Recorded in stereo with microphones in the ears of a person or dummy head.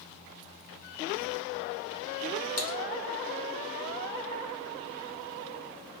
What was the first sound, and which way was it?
Typing on a keyboard, 50° left (ahead or behind).